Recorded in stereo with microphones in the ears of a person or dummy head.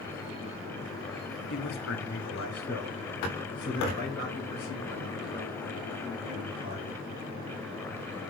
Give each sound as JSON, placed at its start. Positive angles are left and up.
{"t": 1.5, "sound": "a man speaking", "side_deg": 60, "distance_m": 0.8}